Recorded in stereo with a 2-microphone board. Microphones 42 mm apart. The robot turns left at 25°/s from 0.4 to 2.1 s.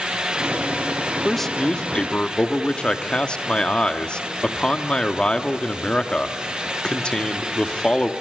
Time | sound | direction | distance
1.2 | a man speaking | 5° left (ahead or behind) | 1.3 m